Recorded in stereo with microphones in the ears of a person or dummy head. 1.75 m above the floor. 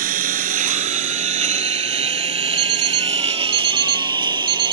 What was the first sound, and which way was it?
A lawn mower, 50° right (ahead or behind).